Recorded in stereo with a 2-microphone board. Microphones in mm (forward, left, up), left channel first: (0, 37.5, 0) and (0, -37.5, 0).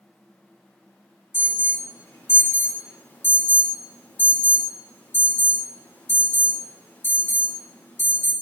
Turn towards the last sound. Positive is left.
turn(degrees=25)  # may be behind; listen again after turning